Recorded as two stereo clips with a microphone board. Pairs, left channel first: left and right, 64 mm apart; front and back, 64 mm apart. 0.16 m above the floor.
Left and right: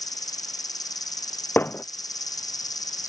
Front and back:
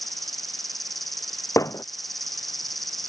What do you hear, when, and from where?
0.0 s an insect: 85° left
1.6 s hammering: 35° left